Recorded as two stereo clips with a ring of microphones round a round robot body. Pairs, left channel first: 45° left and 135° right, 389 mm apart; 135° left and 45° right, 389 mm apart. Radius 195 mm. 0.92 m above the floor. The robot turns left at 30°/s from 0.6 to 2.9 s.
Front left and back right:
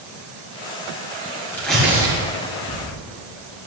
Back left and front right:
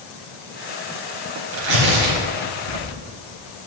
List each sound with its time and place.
1.5 s tearing paper: 40° right, 3 m; by 3.0 s 80° right, 3 m